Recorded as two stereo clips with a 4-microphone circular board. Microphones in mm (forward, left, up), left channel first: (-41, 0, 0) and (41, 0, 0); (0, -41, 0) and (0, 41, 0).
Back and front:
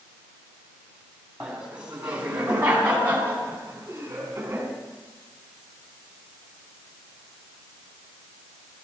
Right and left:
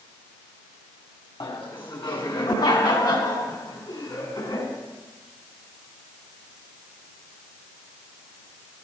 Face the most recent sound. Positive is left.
turn(degrees=-65)